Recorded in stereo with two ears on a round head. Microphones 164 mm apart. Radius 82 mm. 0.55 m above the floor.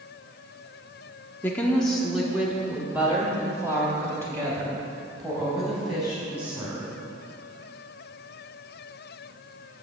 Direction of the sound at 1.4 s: 10° left (ahead or behind).